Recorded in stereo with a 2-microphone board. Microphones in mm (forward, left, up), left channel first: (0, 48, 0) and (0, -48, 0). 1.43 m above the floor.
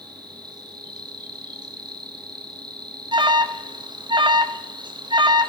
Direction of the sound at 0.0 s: 50° right (ahead or behind).